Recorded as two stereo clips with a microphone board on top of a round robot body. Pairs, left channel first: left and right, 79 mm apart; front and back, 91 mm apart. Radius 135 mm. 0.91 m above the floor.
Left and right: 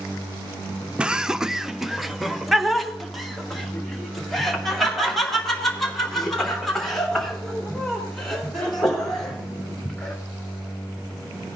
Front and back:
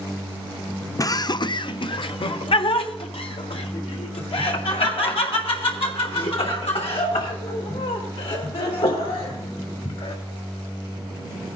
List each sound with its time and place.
1.0 s laughter: 20° right, 0.5 m; by 10.1 s 5° left, 5 m